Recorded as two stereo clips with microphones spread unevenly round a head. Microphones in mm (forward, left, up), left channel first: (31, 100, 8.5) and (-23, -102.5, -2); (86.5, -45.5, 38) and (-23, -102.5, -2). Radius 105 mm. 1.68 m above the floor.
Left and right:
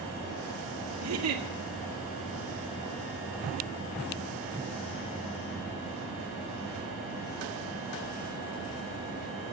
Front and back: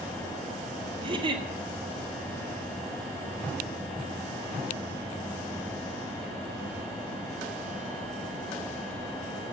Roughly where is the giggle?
Right.